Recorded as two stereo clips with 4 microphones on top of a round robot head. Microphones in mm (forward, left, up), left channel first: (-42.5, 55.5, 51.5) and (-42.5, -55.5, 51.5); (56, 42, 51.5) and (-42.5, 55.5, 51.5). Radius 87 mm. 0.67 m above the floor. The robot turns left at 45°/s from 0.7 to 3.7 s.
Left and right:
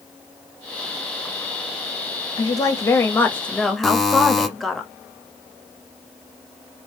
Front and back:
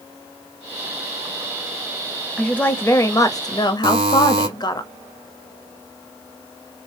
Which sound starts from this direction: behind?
A buzzer, at 3.8 s.